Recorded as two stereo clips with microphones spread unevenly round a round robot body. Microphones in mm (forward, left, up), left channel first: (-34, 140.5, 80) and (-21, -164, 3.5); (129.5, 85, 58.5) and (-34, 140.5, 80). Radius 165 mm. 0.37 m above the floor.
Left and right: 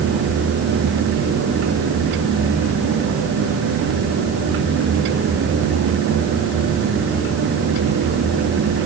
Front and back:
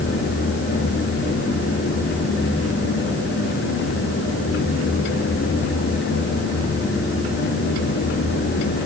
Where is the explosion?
No explosion in this recording.